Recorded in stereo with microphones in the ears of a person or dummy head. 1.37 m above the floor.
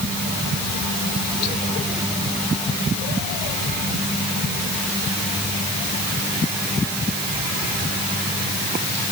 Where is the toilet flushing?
I don't hear a toilet flushing.